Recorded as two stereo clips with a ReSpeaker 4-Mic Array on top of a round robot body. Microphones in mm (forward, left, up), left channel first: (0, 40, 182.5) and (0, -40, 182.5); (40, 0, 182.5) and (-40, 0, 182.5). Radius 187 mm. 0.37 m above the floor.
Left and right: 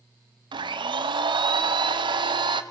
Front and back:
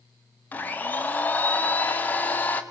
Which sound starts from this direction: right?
A blender, at 0.5 s.